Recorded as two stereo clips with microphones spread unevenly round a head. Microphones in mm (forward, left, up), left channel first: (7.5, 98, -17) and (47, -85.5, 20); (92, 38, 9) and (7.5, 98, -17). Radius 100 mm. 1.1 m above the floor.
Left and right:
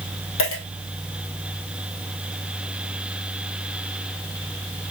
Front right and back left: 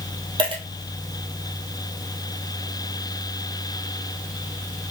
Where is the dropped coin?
100° left, 1.9 m.